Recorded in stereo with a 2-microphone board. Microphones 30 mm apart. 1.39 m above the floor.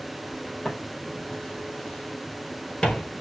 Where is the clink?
No clink in this recording.